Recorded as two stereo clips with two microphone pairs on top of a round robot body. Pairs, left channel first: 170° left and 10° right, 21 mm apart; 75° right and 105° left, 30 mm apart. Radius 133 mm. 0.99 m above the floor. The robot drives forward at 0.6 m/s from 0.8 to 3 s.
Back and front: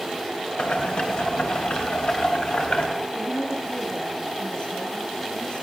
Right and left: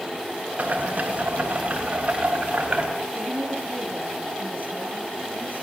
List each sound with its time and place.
0.6 s boiling: 145° left, 3 m; by 2.9 s 155° left, 4 m
3.1 s a woman speaking: 135° left, 9.5 m